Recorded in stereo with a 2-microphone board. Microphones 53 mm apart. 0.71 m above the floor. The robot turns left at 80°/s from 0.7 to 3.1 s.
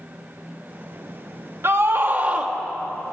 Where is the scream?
95° right, 0.9 m; by 2.5 s 165° right, 0.9 m.